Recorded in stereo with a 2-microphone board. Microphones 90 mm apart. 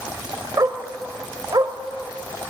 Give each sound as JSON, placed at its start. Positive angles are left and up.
{"t": 0.6, "sound": "a dog barking", "side_deg": -45, "distance_m": 1.4}